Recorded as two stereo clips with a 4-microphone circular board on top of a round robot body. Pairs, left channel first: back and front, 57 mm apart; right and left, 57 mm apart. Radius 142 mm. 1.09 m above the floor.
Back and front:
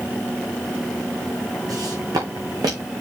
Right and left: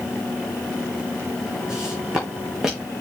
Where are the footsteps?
15° left, 3 m; by 2.9 s 10° left, 4.5 m.